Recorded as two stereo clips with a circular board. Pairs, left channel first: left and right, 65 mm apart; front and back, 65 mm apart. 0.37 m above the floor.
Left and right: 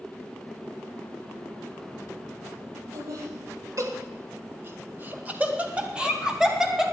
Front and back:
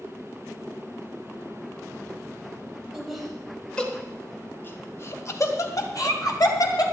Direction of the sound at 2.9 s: 95° right.